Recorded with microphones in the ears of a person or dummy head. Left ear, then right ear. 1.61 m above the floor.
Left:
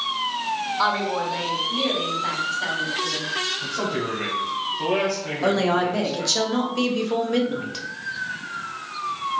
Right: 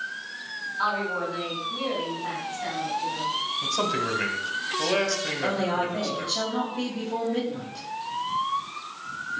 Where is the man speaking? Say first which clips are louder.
Even; 75° right (ahead or behind), 1.2 m.